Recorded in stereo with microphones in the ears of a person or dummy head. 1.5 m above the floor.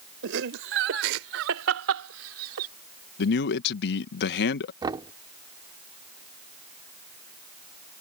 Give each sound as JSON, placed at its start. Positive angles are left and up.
{"t": 0.2, "sound": "laughter", "side_deg": -65}
{"t": 3.2, "sound": "a man speaking", "side_deg": 55}
{"t": 4.8, "sound": "knocking", "side_deg": -20}